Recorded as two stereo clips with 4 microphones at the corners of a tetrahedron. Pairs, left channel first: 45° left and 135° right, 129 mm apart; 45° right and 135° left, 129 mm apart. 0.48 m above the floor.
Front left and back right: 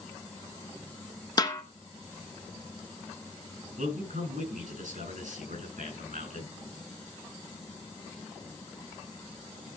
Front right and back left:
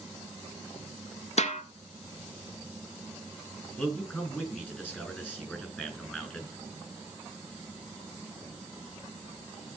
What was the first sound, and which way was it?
A snare drum, 15° right.